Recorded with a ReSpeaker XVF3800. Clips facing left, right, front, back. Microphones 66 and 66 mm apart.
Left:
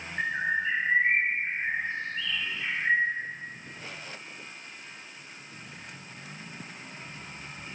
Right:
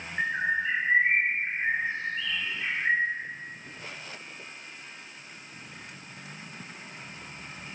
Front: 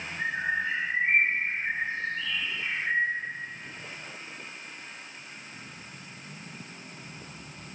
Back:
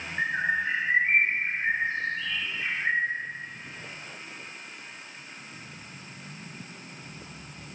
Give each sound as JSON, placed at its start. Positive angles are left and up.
{"t": 0.2, "sound": "a bird", "azimuth_deg": -170, "distance_m": 0.5}